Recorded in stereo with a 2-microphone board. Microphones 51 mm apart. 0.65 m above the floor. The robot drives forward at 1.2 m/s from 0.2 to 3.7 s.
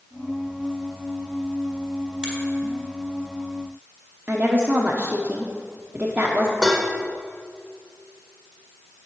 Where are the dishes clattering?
5° right (ahead or behind), 1.5 m.